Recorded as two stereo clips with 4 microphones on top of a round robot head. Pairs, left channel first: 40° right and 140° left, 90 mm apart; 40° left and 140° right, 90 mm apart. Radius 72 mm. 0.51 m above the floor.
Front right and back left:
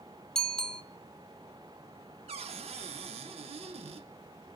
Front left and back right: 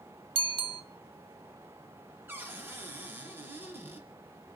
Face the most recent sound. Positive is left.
turn(degrees=155)